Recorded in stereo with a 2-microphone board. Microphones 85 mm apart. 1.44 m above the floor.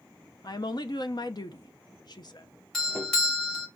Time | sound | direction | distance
0.4 | a woman speaking | 55° left (ahead or behind) | 0.5 m
2.7 | a doorbell | 5° left (ahead or behind) | 1.0 m